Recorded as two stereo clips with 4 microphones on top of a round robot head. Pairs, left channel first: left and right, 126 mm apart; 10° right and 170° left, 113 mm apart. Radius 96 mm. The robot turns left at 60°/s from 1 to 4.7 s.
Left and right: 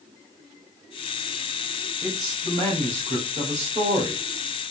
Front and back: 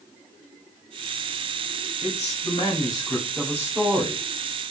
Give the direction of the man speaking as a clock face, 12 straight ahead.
12 o'clock.